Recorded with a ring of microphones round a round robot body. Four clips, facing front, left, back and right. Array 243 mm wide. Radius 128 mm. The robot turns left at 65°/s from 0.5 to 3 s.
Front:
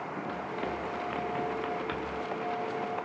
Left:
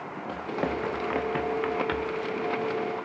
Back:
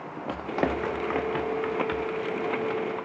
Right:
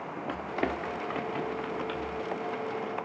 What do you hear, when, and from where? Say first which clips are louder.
0.3 s running footsteps: left 2 dB, back 10 dB; 175° right, 0.6 m; by 2.2 s 65° left, 2.5 m